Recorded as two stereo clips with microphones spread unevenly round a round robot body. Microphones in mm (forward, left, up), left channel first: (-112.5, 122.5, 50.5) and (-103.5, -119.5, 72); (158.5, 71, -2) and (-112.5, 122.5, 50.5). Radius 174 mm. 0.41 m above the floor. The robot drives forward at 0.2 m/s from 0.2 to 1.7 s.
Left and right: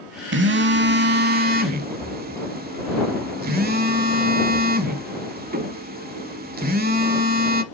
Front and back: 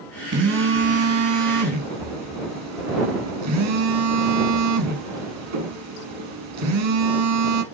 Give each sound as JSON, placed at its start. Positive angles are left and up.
{"t": 0.3, "sound": "a phone buzzing", "azimuth_deg": -130, "distance_m": 0.9}